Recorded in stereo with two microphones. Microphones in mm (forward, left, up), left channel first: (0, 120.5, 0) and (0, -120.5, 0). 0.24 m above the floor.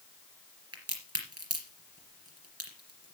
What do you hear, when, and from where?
0.7 s a crack: 70° right (ahead or behind), 3.5 m